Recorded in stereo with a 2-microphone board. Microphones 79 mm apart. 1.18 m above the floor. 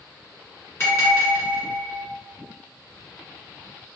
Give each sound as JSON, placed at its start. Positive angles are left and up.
{"t": 0.8, "sound": "a bell", "side_deg": 35, "distance_m": 1.7}